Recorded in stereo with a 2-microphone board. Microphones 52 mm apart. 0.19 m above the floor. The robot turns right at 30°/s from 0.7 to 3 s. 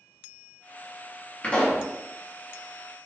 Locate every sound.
1.4 s a pop: 30° left (ahead or behind), 1.3 m; by 1.9 s 35° left (ahead or behind), 1.3 m